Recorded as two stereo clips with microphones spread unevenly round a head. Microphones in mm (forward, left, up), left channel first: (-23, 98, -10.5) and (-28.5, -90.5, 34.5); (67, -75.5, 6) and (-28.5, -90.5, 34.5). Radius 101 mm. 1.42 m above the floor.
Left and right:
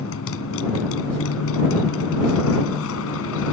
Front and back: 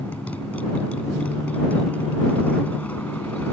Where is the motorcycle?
95° left.